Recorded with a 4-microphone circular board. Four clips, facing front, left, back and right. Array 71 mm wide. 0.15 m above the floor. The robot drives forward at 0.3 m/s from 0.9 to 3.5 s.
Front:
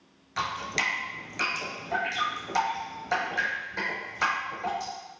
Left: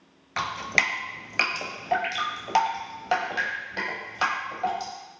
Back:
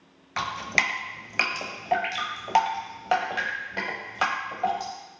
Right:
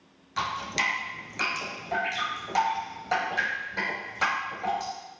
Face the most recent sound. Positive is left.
turn(degrees=160)